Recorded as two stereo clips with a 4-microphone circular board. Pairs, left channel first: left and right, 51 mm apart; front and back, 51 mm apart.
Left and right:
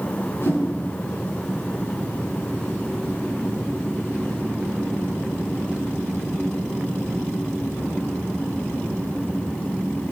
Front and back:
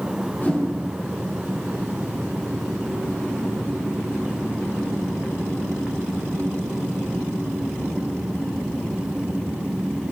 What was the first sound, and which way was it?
A whoosh, 50° left.